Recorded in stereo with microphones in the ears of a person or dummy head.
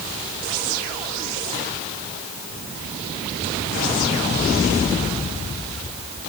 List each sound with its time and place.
Only background noise.